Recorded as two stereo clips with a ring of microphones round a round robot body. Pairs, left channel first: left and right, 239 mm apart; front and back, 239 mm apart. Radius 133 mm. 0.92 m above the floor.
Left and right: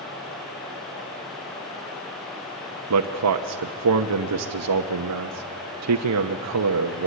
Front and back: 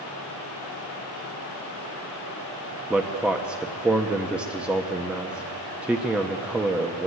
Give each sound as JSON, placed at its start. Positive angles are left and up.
{"t": 2.9, "sound": "a man speaking", "azimuth_deg": -95, "distance_m": 0.9}